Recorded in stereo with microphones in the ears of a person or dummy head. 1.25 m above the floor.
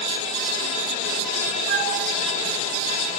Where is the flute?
60° right (ahead or behind), 4.5 m.